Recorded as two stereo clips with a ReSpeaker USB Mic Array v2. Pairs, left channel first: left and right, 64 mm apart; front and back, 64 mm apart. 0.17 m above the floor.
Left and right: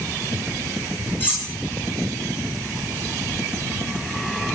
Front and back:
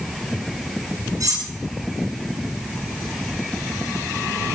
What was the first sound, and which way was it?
Cutlery clinking, 155° left.